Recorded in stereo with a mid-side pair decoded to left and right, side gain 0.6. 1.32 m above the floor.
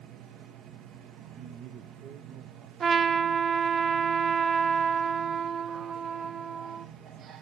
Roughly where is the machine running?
Ahead right.